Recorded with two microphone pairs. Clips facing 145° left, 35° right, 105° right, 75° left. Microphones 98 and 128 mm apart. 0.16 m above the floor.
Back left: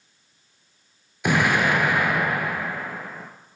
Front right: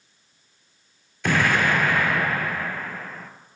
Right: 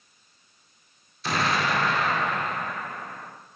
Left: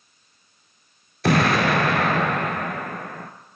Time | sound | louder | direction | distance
1.2 | an explosion | back left 1 dB, left 7 dB | 75° left | 0.9 m